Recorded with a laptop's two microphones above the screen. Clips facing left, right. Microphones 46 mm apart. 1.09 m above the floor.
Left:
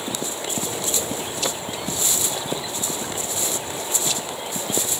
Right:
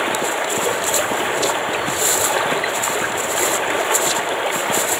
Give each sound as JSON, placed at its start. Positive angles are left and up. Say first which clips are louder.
{"t": 0.0, "sound": "running water", "louder": "right 9 dB", "side_deg": -60}